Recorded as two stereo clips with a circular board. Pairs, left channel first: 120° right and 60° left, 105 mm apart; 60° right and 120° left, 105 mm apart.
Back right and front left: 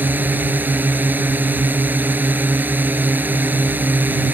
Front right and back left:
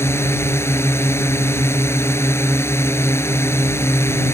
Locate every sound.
0.0 s a drone: 5° right